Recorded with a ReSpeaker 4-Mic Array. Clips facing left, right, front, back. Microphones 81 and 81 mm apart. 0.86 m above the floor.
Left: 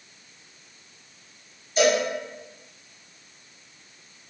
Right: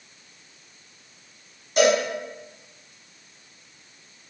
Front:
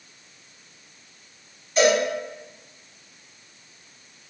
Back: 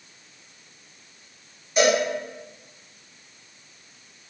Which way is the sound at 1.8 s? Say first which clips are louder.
Right 2 dB, front 1 dB; 100° right.